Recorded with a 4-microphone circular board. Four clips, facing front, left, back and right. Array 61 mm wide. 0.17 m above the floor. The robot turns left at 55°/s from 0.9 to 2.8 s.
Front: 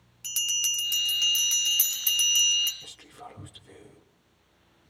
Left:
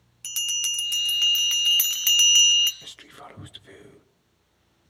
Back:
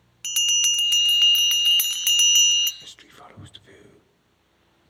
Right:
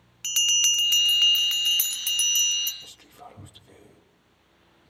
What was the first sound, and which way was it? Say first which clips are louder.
A bell: right 5 dB, back 8 dB; 150° right.